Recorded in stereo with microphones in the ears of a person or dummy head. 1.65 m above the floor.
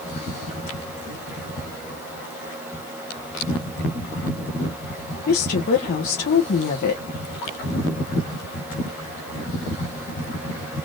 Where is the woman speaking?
50° left (ahead or behind), 0.9 m.